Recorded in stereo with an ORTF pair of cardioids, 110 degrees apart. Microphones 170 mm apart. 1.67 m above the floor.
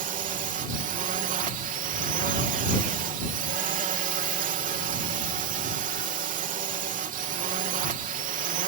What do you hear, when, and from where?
0.0 s a drone: 55° right